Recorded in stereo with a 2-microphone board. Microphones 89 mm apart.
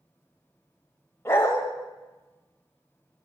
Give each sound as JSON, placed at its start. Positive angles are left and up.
{"t": 1.2, "sound": "a dog barking", "side_deg": 30, "distance_m": 1.7}